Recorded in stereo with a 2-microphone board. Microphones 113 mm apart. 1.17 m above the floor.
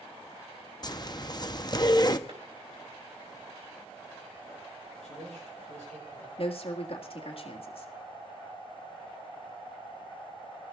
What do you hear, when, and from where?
0.8 s a zipper: 35° left (ahead or behind), 0.6 m
2.3 s a clap: 65° right (ahead or behind), 4 m
5.0 s a man speaking: 85° right, 8 m
6.4 s a woman speaking: 55° left (ahead or behind), 1.6 m